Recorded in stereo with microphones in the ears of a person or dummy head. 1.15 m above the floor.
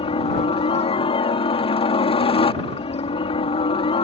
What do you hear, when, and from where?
0.0 s a helicopter: 25° left (ahead or behind)